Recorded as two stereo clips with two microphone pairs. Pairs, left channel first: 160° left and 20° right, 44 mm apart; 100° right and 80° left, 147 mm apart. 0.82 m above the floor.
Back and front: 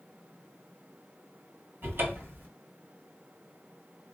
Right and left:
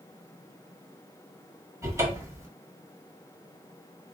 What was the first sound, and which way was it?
A cupboard door, 10° left.